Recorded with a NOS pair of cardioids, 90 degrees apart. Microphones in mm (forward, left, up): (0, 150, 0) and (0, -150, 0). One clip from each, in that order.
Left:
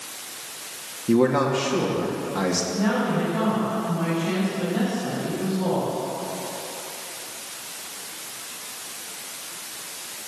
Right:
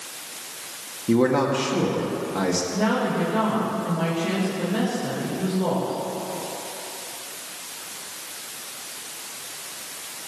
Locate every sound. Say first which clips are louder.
1.1 s a man speaking: even; 5° right, 2 m
2.7 s a woman speaking: right 1 dB; 55° right, 5 m